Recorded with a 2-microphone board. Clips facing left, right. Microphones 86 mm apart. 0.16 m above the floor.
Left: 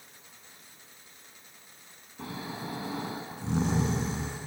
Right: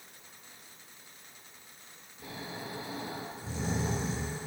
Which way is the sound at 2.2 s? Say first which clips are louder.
Left 4 dB; 70° left (ahead or behind).